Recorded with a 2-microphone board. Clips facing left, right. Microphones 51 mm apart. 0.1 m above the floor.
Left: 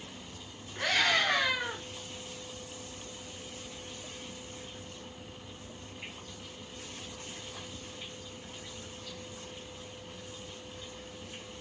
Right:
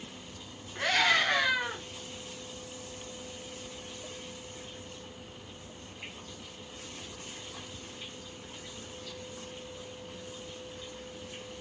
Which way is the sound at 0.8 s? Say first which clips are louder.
Right 2 dB; 15° right (ahead or behind).